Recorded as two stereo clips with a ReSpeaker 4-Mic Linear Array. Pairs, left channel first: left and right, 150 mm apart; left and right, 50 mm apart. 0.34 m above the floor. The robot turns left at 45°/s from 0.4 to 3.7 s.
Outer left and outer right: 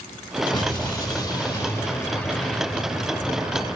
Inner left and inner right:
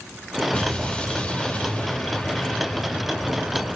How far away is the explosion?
About 1.4 m.